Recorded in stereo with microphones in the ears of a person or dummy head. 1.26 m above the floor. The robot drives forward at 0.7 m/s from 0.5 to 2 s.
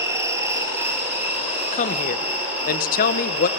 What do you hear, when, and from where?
0.0 s an insect: 15° right (ahead or behind), 1.2 m; by 3.6 s 10° right (ahead or behind), 2 m
1.7 s a woman speaking: 40° left (ahead or behind), 1.0 m; by 3.5 s 50° left (ahead or behind), 0.8 m